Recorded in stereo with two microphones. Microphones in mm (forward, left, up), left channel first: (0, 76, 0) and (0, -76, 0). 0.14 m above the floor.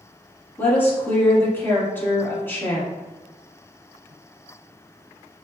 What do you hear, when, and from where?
0.6 s a woman speaking: 15° left (ahead or behind), 1.1 m